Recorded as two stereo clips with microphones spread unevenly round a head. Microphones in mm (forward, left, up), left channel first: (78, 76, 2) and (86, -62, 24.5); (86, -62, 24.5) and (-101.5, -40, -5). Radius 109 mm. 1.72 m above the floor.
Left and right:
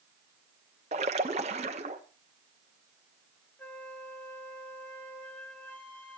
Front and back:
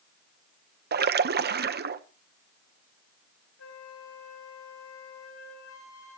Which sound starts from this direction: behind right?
A splash, at 0.9 s.